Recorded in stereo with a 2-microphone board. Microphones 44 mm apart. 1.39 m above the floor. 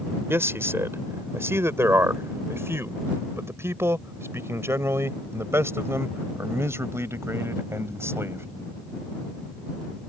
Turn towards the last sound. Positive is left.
turn(degrees=-85)